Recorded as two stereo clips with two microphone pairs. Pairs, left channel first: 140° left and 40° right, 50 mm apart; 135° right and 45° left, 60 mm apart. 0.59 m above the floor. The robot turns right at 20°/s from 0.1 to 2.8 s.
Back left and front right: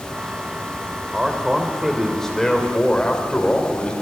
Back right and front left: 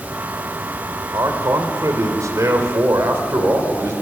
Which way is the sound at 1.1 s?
40° left.